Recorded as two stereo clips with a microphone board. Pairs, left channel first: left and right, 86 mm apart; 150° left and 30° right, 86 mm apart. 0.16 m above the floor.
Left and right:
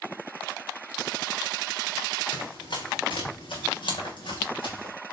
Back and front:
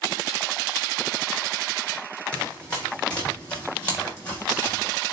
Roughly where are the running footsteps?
Left.